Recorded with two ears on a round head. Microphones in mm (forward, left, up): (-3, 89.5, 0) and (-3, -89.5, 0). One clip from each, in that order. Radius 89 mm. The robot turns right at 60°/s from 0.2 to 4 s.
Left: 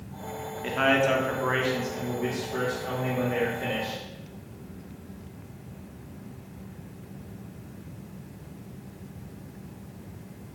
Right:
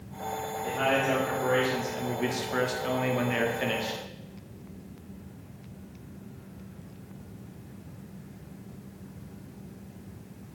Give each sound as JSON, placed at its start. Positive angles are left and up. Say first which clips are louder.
{"t": 0.6, "sound": "a man speaking", "louder": "left 4 dB", "azimuth_deg": 120, "distance_m": 0.5}